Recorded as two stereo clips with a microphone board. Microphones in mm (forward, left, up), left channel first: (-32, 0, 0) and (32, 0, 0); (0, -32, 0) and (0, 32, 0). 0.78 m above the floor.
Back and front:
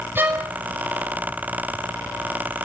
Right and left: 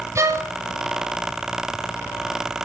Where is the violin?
55° left, 2.5 m.